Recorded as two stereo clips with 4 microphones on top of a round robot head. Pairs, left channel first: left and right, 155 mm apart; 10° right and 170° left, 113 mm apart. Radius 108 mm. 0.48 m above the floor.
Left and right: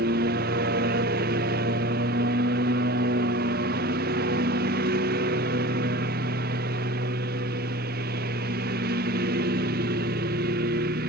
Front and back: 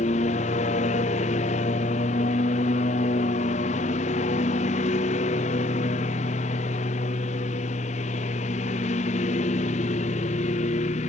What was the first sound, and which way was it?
A lawn mower, 50° right.